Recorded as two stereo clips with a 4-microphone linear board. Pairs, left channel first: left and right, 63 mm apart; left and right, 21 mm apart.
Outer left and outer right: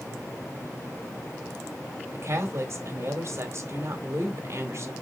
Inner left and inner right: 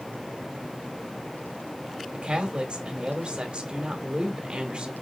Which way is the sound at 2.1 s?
50° right (ahead or behind).